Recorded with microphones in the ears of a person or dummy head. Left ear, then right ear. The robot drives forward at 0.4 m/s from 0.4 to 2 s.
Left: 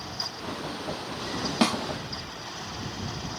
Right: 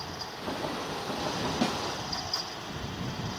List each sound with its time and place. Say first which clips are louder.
1.6 s a snare drum: left 7 dB; 60° left (ahead or behind), 0.9 m